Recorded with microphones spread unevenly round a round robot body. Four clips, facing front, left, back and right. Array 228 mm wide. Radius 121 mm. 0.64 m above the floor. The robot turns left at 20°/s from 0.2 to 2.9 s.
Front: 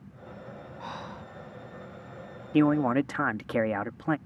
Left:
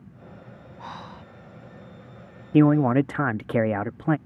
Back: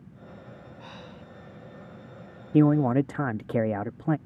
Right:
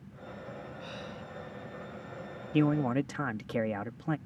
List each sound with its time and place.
0.8 s breathing: 40° left; by 1.3 s 30° left
2.5 s a man speaking: 85° left; by 4.2 s 80° left